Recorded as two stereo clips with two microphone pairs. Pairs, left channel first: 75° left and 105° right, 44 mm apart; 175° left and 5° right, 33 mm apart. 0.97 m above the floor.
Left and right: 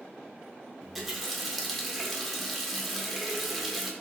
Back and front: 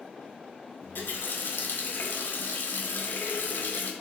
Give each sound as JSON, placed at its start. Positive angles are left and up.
{"t": 0.8, "sound": "a running tap", "azimuth_deg": 170, "distance_m": 0.5}